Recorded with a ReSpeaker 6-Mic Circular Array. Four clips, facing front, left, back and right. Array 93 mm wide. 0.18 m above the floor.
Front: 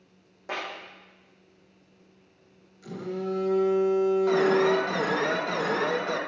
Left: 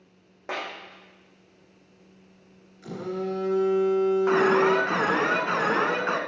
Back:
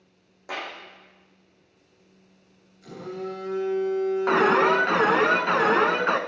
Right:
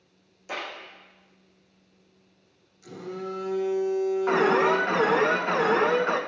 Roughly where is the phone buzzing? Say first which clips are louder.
Left 4 dB, front 2 dB; left.